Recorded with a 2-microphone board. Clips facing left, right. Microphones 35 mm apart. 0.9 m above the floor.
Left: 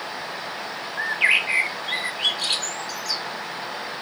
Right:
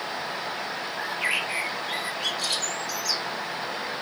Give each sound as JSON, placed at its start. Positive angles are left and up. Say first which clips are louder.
{"t": 1.0, "sound": "a bird", "louder": "left 8 dB", "side_deg": 40, "distance_m": 0.9}